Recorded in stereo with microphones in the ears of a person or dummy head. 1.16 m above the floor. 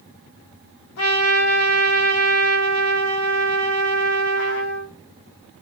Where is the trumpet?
85° left, 1.8 m.